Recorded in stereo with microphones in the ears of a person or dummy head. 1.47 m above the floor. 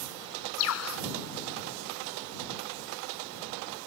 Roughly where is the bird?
Left.